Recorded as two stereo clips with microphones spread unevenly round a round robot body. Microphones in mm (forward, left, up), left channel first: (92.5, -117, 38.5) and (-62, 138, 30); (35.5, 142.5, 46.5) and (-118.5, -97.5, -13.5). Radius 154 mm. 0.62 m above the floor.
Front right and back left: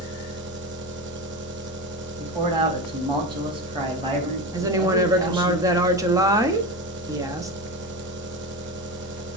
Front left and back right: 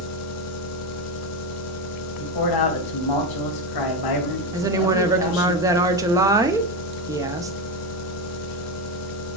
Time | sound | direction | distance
0.0 | an engine running | 85° left | 0.9 m
2.2 | a man speaking | 50° left | 1.3 m
4.5 | a woman speaking | 170° right | 0.8 m